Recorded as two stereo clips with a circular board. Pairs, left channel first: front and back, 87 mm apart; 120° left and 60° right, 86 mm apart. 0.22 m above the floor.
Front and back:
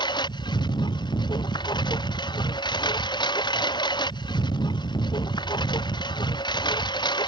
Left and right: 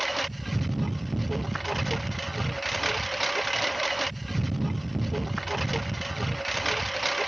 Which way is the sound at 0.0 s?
30° left.